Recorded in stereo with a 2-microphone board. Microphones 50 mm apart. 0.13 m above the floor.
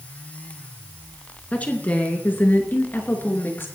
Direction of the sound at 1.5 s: 30° left (ahead or behind).